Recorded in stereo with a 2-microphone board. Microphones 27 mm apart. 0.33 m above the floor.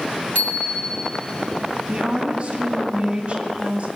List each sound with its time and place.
0.3 s a bicycle bell: 60° left (ahead or behind), 2.5 m
1.9 s a woman speaking: 35° right (ahead or behind), 2 m